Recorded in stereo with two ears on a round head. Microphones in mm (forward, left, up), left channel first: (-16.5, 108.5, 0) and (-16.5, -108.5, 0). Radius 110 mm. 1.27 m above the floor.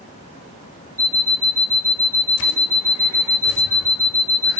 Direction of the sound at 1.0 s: 15° right (ahead or behind).